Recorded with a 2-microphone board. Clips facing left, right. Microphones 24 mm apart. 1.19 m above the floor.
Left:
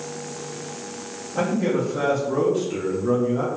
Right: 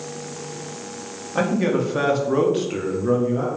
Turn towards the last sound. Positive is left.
turn(degrees=10)  # may be behind; listen again after turning